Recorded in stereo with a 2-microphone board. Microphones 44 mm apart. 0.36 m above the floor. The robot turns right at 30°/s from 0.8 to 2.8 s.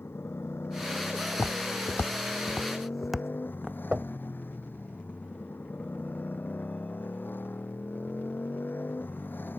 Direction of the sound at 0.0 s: 70° left.